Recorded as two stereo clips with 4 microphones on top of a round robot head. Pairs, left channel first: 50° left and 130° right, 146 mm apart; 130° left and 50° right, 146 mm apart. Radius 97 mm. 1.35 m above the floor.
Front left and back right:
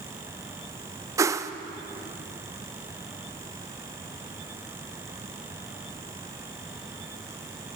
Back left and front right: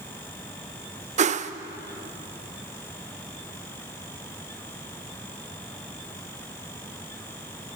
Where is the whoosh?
65° right, 0.5 m.